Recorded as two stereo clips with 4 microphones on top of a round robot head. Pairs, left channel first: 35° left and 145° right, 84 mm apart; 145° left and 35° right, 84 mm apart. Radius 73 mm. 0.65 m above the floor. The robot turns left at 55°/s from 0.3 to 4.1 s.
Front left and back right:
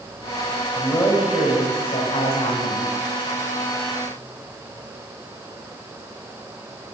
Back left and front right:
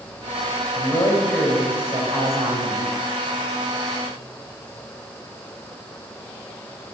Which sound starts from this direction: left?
A man speaking, at 0.8 s.